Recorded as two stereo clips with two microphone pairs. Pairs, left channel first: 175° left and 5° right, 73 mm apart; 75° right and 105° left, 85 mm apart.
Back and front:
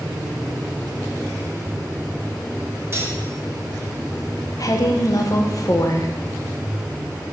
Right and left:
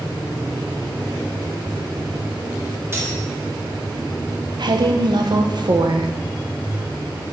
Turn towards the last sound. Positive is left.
turn(degrees=135)